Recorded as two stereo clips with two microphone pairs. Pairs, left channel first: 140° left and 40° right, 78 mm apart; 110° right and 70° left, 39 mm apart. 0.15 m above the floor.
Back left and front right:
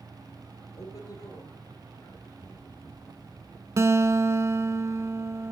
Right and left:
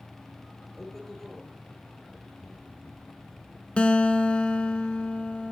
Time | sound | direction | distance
0.8 | a man speaking | 170° left | 2.5 m
3.8 | a guitar | 60° right | 0.6 m